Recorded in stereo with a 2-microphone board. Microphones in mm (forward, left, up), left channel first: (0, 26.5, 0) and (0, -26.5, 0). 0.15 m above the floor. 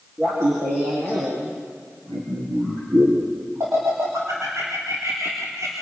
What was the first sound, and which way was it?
Laughter, 55° right (ahead or behind).